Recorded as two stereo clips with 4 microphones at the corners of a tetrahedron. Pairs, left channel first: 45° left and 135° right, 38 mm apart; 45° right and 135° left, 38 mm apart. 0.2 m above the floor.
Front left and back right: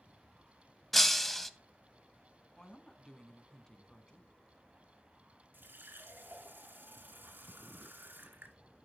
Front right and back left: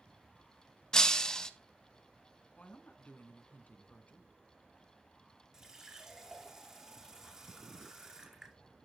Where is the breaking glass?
30° right, 0.6 m.